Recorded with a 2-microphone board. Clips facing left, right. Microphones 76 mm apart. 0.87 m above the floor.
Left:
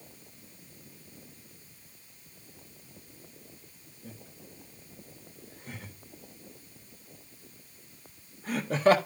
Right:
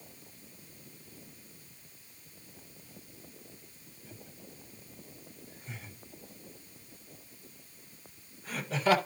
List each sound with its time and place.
4.0 s laughter: 55° left (ahead or behind), 4.5 m